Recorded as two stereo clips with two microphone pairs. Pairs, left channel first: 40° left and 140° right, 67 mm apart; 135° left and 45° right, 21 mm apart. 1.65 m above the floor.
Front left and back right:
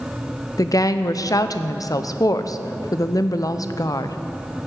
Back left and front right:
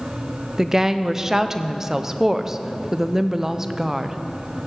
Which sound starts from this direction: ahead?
A woman speaking, at 0.6 s.